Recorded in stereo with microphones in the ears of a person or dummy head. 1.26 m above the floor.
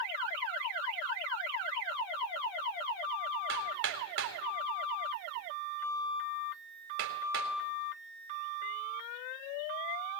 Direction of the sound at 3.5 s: 60° right (ahead or behind).